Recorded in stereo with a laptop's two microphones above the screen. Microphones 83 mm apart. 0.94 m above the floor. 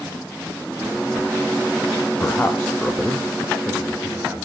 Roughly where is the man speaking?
Left.